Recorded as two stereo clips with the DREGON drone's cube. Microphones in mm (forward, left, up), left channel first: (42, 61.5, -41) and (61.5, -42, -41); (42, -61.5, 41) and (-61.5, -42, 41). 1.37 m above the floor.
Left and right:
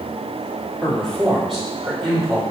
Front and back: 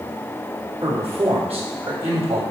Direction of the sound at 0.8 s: 175° right.